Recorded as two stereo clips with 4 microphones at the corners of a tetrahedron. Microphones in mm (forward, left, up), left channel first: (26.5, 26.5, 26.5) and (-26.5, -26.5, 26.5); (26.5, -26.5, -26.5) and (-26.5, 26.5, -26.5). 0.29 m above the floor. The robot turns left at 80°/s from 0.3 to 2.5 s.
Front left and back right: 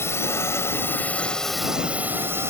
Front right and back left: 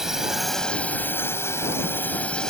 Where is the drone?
55° left; by 2.5 s 120° right.